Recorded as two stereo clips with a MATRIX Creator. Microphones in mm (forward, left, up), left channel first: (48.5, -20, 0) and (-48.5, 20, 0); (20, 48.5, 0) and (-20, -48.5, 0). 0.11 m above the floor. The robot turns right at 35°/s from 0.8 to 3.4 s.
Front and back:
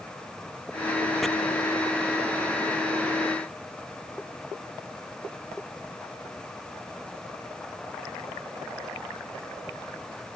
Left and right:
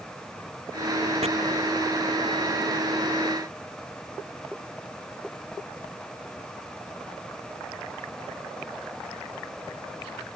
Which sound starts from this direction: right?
Chopping, at 1.2 s.